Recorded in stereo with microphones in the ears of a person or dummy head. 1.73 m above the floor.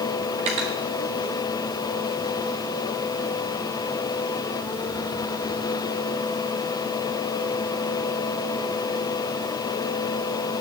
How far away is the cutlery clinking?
About 1.2 m.